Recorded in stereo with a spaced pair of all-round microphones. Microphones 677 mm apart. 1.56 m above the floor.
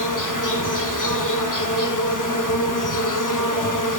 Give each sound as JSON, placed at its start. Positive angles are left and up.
{"t": 0.0, "sound": "an insect", "side_deg": 30, "distance_m": 0.8}